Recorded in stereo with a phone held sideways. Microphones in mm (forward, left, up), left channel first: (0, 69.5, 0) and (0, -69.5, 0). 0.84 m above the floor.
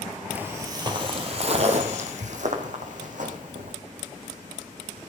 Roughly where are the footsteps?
Centre.